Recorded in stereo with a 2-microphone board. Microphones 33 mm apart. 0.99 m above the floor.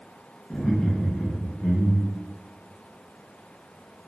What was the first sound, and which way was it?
Laughter, 25° left (ahead or behind).